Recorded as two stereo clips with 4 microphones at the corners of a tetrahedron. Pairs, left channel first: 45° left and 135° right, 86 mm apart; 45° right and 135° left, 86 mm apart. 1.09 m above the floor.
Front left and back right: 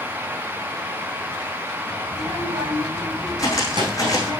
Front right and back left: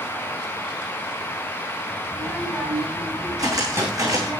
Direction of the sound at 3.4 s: 90° left.